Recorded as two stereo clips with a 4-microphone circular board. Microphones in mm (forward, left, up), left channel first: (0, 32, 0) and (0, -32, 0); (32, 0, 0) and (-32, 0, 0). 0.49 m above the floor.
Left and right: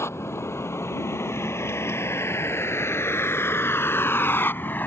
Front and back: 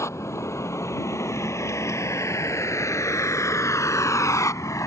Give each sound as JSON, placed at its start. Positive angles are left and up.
{"t": 0.0, "sound": "a vehicle", "azimuth_deg": 45}